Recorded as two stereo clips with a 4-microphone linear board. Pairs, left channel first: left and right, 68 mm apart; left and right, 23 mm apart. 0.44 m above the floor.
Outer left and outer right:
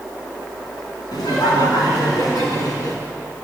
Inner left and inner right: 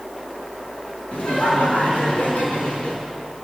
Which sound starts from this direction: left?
Laughter, at 1.1 s.